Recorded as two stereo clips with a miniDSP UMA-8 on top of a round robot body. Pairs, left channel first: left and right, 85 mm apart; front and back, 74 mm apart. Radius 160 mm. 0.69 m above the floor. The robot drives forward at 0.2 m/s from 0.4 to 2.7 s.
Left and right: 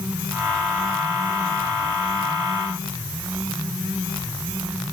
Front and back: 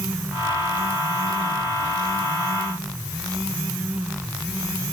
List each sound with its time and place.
Only background noise.